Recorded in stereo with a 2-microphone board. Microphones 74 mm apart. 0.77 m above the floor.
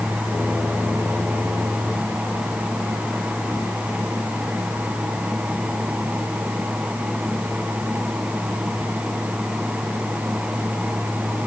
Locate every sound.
Only background noise.